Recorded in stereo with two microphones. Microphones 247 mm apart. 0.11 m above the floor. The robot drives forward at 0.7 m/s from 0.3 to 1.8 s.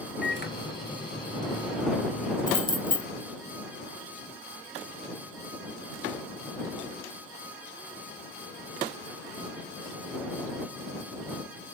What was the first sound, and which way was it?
A microwave, 45° left (ahead or behind).